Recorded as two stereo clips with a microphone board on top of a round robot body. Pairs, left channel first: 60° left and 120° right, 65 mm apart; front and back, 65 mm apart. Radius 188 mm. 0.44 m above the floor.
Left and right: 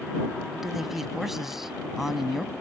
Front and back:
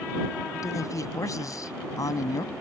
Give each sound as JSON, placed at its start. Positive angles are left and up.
{"t": 0.5, "sound": "a man speaking", "azimuth_deg": -35}